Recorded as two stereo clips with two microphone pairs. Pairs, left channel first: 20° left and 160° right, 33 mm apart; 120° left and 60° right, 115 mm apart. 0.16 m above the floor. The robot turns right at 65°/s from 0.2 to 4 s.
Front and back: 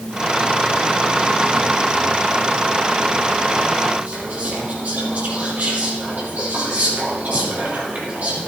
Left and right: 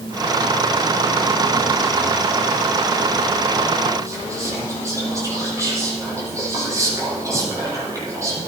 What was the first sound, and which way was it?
Whispering, 120° right.